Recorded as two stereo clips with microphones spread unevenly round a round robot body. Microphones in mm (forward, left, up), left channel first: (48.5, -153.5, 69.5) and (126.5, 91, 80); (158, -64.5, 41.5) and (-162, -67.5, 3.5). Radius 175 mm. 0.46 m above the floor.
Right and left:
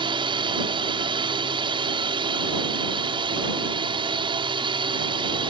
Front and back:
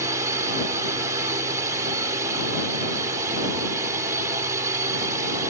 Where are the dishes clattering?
No dishes clattering in this recording.